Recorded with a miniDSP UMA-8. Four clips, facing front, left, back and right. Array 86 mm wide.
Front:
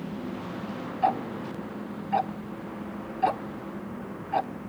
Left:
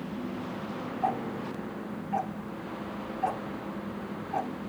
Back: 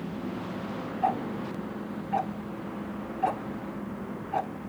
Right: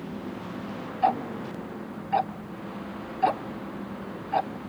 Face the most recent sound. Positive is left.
turn(degrees=-65)